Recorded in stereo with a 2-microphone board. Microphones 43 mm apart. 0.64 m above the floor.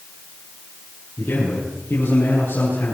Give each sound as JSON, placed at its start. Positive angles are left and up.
{"t": 1.2, "sound": "a man speaking", "side_deg": 55, "distance_m": 10.0}